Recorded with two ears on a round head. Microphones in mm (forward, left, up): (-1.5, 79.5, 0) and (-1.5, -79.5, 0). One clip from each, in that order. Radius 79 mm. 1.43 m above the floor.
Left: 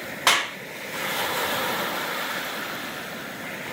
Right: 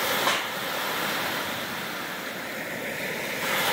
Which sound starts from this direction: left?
A clap, at 0.3 s.